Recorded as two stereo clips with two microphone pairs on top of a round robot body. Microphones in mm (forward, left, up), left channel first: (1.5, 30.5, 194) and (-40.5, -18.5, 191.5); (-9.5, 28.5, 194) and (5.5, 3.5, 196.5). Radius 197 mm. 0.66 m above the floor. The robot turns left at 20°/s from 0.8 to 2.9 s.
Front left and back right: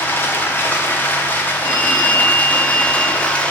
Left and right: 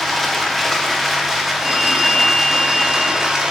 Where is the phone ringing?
70° right, 1.5 m; by 3.4 s 95° right, 1.5 m.